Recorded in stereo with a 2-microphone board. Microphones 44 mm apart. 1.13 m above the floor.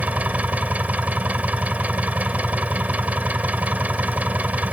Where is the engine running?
35° right (ahead or behind).